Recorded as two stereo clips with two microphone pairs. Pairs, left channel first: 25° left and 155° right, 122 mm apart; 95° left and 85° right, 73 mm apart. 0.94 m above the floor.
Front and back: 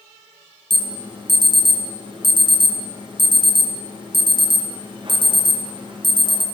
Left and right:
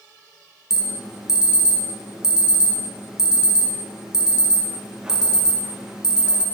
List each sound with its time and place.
0.7 s an alarm: 160° right, 0.6 m